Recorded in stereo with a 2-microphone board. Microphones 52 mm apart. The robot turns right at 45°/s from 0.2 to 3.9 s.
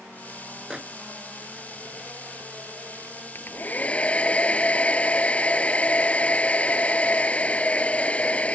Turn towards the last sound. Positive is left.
turn(degrees=25)  # may be behind; listen again after turning